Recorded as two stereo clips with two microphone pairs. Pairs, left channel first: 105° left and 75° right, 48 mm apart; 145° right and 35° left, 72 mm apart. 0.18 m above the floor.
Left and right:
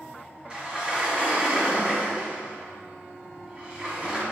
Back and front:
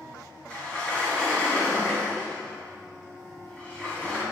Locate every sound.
0.5 s a sliding door: 110° right, 1.6 m